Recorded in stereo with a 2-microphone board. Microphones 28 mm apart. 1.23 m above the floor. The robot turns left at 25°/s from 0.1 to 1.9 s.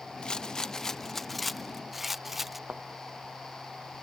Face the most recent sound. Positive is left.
turn(degrees=-85)